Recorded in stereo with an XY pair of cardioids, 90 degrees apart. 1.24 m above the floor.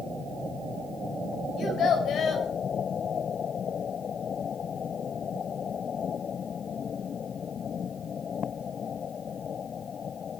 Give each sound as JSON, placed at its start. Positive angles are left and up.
{"t": 1.6, "sound": "a child speaking", "azimuth_deg": 70, "distance_m": 4.0}